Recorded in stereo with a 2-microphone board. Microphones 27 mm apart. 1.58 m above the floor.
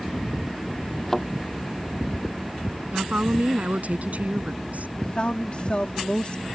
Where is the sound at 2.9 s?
65° right (ahead or behind).